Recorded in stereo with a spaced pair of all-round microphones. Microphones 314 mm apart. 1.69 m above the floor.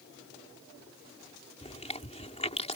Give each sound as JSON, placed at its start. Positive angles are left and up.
{"t": 1.6, "sound": "chewing", "side_deg": 20}